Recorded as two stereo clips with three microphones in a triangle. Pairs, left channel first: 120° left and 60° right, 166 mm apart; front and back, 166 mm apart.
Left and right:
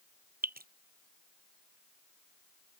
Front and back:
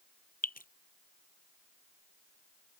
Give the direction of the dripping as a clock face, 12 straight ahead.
1 o'clock.